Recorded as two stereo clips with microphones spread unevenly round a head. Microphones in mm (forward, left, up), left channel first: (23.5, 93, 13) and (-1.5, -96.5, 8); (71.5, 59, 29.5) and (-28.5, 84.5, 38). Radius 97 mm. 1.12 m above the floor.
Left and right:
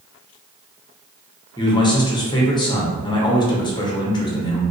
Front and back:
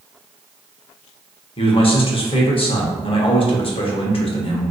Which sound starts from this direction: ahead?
A man speaking, at 1.6 s.